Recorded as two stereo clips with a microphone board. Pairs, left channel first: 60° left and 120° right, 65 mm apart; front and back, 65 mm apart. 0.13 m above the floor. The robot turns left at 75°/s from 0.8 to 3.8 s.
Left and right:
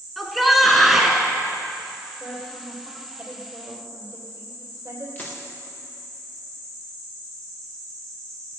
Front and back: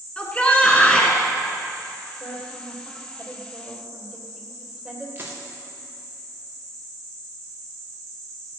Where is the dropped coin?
120° left, 3.5 m.